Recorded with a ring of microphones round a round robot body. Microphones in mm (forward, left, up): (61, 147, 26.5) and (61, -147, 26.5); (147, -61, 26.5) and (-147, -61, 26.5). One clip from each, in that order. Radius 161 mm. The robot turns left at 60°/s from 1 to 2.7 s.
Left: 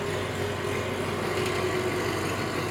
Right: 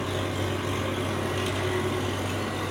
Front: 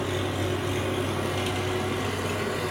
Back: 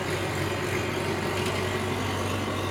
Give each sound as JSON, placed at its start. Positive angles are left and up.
{"t": 0.0, "sound": "an engine running", "azimuth_deg": 150, "distance_m": 4.5}